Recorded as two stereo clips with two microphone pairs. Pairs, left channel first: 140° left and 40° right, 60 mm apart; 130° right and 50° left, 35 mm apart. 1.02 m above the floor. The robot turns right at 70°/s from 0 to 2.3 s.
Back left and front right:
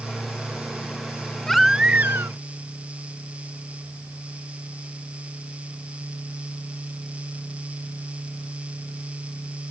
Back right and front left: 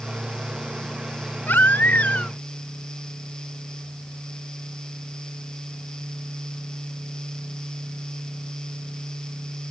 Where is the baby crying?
140° right; by 2.4 s 80° right.